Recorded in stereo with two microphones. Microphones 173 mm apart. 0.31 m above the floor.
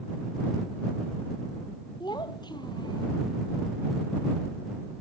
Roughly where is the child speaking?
Left.